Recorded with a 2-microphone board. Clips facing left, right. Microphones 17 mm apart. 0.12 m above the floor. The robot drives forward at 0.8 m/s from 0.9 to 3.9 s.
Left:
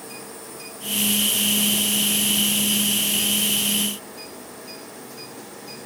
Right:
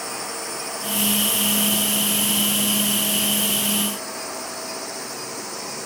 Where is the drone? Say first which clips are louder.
Right 8 dB; 50° right (ahead or behind).